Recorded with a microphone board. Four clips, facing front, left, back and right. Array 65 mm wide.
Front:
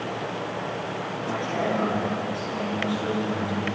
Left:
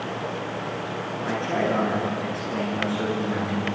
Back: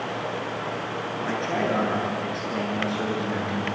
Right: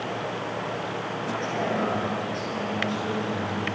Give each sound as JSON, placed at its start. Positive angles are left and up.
{"t": 1.2, "sound": "a man speaking", "azimuth_deg": 135, "distance_m": 7.5}